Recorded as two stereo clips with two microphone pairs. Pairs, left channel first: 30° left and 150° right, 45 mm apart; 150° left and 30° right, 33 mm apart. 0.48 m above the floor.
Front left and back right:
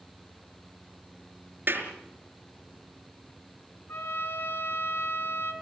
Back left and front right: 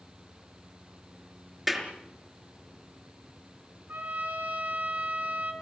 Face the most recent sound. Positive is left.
turn(degrees=-5)